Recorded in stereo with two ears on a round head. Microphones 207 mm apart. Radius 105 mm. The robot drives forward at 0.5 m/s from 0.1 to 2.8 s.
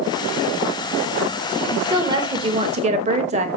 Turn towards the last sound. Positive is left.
turn(degrees=-30)  # may be behind; listen again after turning